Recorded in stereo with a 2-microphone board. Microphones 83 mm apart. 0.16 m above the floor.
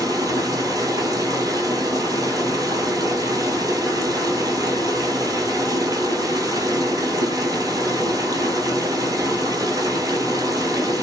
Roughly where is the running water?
Right.